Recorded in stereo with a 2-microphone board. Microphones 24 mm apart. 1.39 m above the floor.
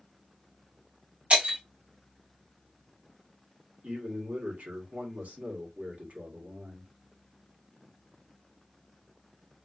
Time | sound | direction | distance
1.3 | breaking glass | 50° right (ahead or behind) | 1.8 m
3.8 | a man speaking | 80° right | 1.6 m